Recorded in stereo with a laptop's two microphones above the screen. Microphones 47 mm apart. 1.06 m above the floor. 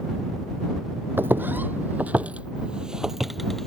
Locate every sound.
1.2 s footsteps: 50° right (ahead or behind); by 3.7 s 5° left (ahead or behind)